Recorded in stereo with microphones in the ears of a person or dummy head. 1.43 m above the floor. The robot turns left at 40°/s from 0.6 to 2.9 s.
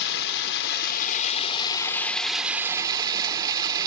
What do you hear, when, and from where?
0.0 s running water: 75° left, 0.9 m; by 3.9 s 20° right, 0.9 m